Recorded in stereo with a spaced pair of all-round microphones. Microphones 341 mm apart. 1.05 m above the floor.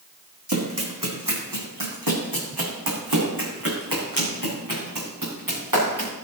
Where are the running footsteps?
55° right (ahead or behind), 3.5 m.